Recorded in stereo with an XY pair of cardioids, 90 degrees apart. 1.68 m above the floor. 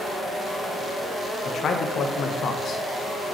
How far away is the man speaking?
About 0.9 m.